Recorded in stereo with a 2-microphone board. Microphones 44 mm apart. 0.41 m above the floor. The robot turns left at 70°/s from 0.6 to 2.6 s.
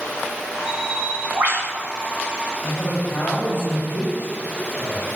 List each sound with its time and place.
0.7 s a bird: 10° right, 1.7 m; by 1.7 s 80° right, 1.7 m
2.6 s a man speaking: 45° left (ahead or behind), 2.5 m